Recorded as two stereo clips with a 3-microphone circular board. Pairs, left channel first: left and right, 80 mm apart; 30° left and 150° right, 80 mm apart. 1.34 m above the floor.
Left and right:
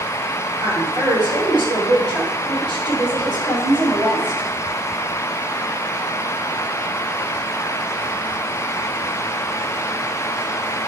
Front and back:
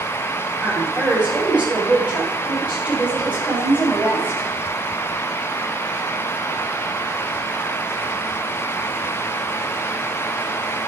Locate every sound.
0.6 s a woman speaking: 70° right, 4.5 m; by 4.5 s 80° right, 6.5 m